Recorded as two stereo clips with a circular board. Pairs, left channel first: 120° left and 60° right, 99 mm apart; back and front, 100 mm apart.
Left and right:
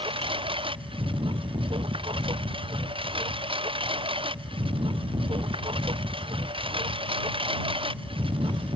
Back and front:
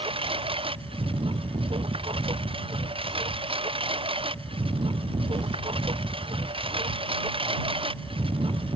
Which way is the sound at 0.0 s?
30° right.